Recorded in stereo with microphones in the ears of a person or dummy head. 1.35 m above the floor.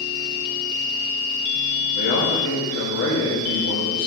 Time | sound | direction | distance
1.9 | a man speaking | 65° left (ahead or behind) | 1.8 m